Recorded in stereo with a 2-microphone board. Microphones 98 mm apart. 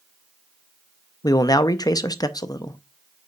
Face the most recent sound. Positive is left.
turn(degrees=40)  # may be behind; listen again after turning